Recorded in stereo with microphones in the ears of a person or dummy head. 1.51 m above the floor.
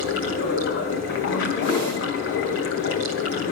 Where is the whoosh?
25° left (ahead or behind), 9.5 m.